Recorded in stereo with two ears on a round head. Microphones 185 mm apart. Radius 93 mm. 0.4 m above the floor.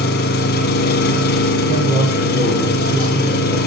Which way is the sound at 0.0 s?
50° left (ahead or behind).